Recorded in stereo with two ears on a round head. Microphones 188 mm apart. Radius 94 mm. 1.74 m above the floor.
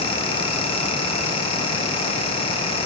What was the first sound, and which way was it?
Only background noise.